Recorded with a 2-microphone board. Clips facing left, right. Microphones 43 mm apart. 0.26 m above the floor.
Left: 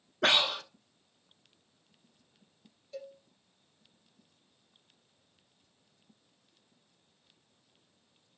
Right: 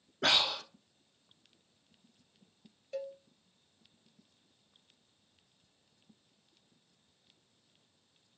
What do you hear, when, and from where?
0.2 s breathing: 40° left (ahead or behind), 0.7 m
2.9 s a cowbell: 45° right (ahead or behind), 0.6 m